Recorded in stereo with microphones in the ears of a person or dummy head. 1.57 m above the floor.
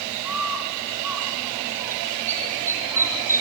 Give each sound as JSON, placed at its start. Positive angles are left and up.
{"t": 0.2, "sound": "a bird", "side_deg": -5, "distance_m": 1.4}